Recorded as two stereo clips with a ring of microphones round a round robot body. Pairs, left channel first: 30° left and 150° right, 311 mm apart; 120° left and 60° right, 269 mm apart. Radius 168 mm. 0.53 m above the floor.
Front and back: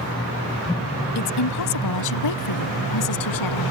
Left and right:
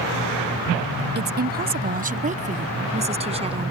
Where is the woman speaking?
10° right; by 3.7 s 10° left.